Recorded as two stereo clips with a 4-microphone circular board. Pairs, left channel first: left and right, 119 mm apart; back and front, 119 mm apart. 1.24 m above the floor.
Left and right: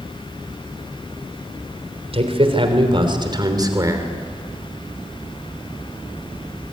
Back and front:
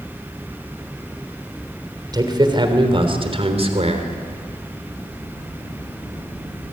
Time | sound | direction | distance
2.1 | a man speaking | 55° right | 3.5 m